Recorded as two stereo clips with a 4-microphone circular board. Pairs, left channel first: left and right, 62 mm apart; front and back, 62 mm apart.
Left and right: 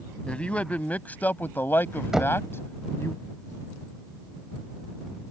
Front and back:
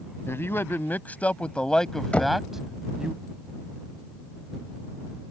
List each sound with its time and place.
0.3 s a man speaking: 20° left; by 3.1 s 115° left
2.1 s knocking: 20° right